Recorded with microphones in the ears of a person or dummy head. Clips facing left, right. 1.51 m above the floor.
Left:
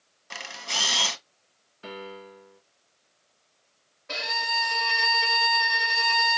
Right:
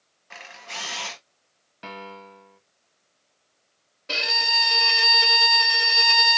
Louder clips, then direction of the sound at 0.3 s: Left 3 dB; 55° left (ahead or behind).